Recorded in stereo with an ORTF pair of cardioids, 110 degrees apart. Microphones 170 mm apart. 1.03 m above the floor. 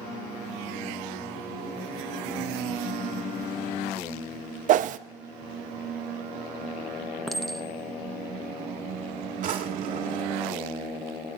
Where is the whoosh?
50° right, 0.6 m.